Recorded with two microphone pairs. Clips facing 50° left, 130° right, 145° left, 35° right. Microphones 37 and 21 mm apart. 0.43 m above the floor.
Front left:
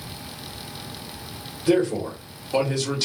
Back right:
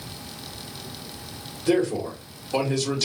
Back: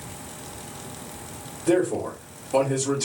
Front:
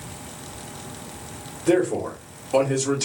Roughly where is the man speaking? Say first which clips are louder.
Front left 2 dB, front 1 dB; ahead right.